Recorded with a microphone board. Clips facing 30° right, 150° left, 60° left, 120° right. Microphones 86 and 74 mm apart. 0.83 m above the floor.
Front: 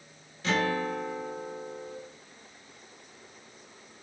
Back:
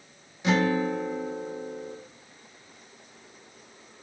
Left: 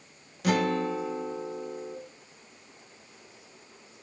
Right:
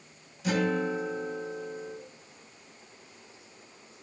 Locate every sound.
0.4 s a guitar: 80° left, 0.7 m